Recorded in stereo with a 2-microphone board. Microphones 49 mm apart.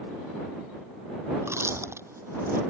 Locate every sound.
1.4 s chewing: 75° right (ahead or behind)